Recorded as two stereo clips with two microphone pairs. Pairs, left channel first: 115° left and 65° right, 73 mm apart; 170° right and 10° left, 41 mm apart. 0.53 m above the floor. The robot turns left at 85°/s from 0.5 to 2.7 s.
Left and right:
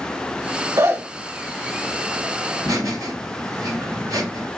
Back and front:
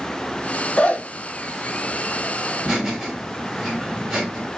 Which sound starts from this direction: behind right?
A zipper, at 0.8 s.